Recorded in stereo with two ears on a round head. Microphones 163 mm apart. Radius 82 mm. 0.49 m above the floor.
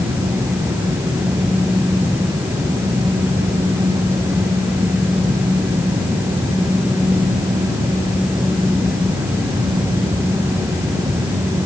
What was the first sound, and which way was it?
Only background noise.